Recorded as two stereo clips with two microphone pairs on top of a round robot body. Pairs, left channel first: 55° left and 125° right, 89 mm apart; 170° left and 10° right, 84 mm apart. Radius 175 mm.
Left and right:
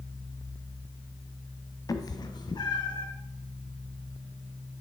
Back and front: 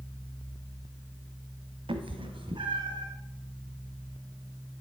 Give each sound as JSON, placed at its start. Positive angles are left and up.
{"t": 1.9, "sound": "a cat meowing", "azimuth_deg": 5, "distance_m": 1.2}